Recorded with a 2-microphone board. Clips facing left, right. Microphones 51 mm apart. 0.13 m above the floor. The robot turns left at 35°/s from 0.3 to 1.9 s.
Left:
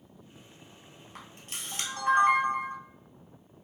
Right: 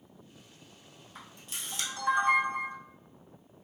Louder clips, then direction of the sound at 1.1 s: Left 1 dB; 65° left (ahead or behind).